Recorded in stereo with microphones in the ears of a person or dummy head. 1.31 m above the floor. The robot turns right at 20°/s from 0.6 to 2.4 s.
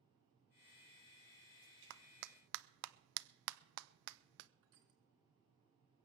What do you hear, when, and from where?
1.9 s a clap: 65° right (ahead or behind), 0.5 m; by 4.5 s 75° right (ahead or behind), 0.5 m
4.6 s crushing: 70° right (ahead or behind), 3.5 m